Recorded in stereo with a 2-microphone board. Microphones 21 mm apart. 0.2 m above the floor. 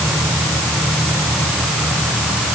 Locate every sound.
Only background noise.